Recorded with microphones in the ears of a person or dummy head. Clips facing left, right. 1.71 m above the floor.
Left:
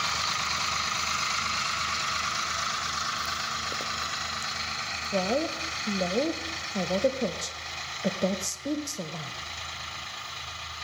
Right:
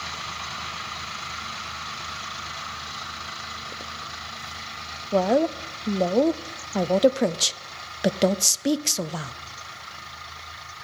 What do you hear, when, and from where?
5.1 s a woman speaking: 85° right, 0.6 m